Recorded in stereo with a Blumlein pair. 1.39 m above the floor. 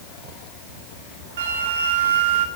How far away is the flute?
About 2 m.